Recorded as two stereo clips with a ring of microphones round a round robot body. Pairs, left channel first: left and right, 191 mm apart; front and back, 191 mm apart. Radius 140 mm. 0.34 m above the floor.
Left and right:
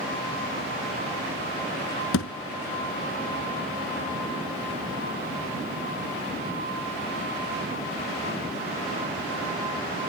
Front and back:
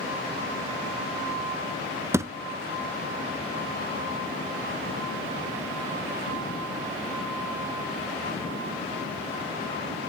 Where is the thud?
105° left, 0.9 m.